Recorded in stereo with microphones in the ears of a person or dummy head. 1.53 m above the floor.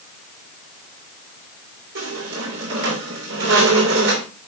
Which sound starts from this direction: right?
A squeak, at 1.9 s.